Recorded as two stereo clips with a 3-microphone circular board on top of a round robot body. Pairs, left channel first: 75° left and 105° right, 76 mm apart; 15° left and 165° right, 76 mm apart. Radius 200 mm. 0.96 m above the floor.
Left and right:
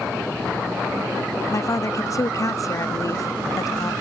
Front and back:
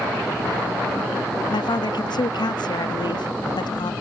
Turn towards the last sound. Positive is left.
turn(degrees=30)